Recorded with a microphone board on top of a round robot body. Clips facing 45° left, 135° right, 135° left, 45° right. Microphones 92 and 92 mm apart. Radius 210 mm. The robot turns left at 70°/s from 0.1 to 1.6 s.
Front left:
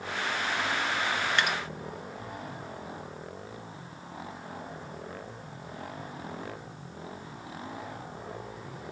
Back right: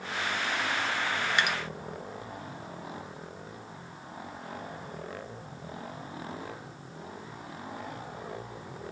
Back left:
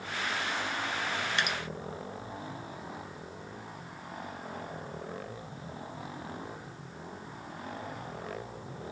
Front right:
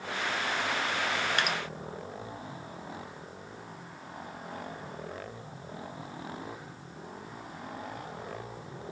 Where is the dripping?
60° right, 1.2 m; by 1.6 s 75° right, 1.2 m.